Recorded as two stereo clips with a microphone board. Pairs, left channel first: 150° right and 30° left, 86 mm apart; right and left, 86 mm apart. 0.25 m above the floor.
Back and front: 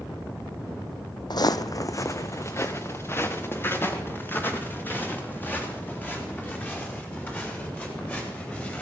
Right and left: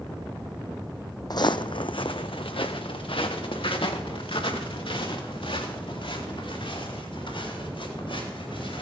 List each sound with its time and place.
1.3 s footsteps: 125° right, 0.6 m; by 8.8 s 80° right, 6 m